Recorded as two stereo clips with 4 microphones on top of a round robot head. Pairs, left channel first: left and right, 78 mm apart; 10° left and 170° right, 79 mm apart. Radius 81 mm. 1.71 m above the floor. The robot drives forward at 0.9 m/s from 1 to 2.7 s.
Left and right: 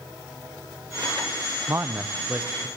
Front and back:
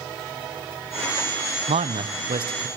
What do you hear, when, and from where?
1.7 s a man speaking: 160° right, 0.7 m; by 2.7 s 170° right, 1.5 m